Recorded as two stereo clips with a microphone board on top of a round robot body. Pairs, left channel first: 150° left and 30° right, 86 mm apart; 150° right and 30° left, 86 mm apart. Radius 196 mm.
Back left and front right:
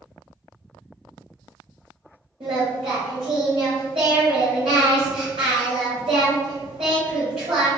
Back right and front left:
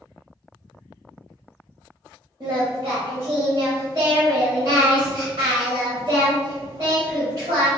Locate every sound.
2.4 s singing: 10° right, 0.6 m